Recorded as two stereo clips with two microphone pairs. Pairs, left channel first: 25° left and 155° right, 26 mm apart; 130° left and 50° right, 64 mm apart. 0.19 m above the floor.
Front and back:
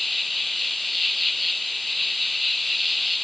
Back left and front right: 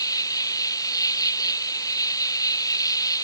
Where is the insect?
115° left.